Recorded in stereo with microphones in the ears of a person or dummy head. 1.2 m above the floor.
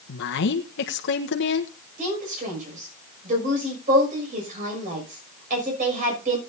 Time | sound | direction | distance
0.1 | a woman speaking | 55° left (ahead or behind) | 1.1 m
2.0 | a woman speaking | 55° right (ahead or behind) | 6 m